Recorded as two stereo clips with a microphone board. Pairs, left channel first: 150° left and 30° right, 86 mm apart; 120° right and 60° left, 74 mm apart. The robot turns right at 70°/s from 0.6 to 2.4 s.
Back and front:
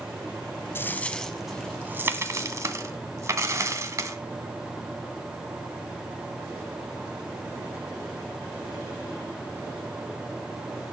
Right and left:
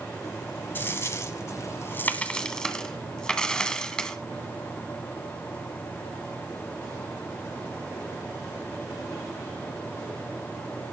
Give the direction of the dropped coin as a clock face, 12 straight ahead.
5 o'clock.